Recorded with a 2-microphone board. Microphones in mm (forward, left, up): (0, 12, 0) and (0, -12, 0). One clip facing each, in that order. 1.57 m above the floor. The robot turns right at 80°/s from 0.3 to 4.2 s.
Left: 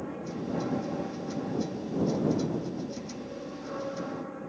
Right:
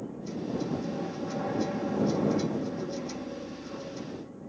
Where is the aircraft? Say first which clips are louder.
Left 1 dB; 125° left; by 4.5 s 75° left.